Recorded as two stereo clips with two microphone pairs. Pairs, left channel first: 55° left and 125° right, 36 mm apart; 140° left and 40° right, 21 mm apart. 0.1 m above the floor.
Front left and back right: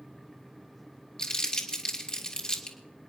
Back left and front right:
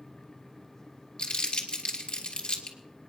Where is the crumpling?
115° left, 2.5 m.